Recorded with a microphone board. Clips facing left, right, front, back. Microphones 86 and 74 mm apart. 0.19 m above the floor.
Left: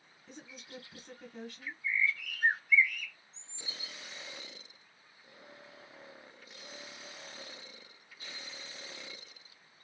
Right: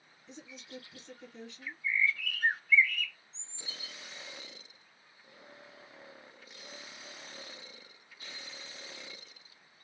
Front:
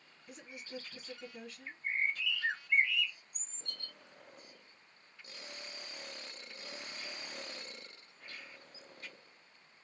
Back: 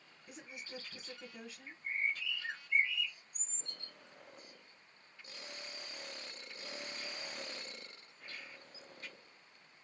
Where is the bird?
15° left, 0.6 m.